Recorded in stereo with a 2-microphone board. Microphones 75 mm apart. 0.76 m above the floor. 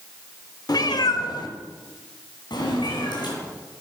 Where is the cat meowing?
65° left (ahead or behind), 0.8 m; by 3.3 s 90° left, 4 m.